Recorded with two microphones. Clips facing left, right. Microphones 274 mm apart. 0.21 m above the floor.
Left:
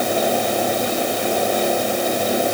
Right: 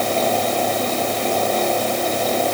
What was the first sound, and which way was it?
Only background noise.